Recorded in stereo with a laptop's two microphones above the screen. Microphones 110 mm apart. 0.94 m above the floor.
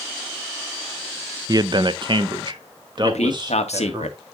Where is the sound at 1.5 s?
35° right (ahead or behind), 0.5 m; by 4.0 s 40° right (ahead or behind), 1.8 m.